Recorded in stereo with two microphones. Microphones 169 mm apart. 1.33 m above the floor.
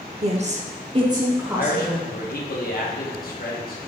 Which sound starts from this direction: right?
A woman speaking, at 0.2 s.